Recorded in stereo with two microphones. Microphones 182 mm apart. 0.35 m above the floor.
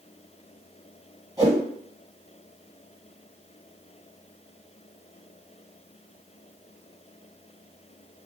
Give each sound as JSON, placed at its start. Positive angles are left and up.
{"t": 1.4, "sound": "a whoosh", "side_deg": -20, "distance_m": 1.6}